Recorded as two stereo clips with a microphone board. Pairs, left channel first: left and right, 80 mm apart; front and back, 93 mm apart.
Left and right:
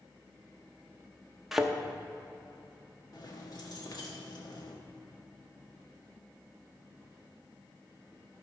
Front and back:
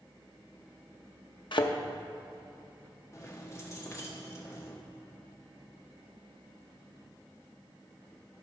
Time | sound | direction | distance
1.5 | a thud | 5° right | 0.8 m
3.1 | keys jangling | 55° left | 1.4 m